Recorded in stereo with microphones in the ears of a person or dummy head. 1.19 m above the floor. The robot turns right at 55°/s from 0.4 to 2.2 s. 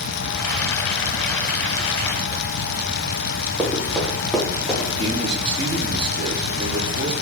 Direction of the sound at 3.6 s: Centre (ahead or behind).